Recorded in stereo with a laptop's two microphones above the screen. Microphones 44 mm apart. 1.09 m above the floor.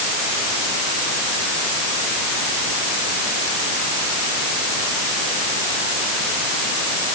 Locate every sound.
Only background noise.